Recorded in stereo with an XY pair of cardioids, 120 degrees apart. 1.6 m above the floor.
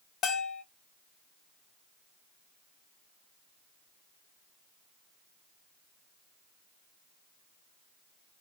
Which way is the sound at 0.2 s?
55° left.